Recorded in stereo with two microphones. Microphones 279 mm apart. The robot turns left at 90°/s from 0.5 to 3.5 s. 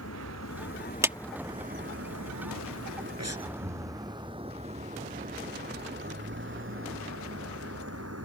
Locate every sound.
0.0 s a vehicle: 65° left (ahead or behind); by 8.2 s 60° right (ahead or behind)
1.0 s a clap: 10° right (ahead or behind); by 1.2 s centre (ahead or behind)
3.2 s breathing: 70° right (ahead or behind); by 4.0 s 40° right (ahead or behind)